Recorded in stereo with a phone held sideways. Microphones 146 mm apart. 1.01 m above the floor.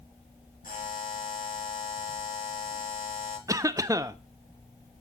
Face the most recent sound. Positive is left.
turn(degrees=-20)  # may be behind; listen again after turning